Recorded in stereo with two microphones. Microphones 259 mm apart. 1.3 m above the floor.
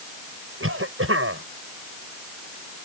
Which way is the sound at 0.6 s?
55° right (ahead or behind).